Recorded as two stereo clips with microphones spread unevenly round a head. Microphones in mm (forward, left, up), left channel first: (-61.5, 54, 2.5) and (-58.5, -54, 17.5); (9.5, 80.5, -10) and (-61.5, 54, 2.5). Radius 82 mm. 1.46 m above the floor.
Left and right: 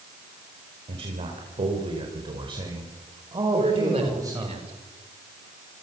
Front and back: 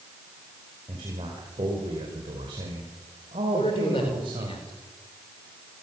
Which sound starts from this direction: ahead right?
A man speaking, at 3.5 s.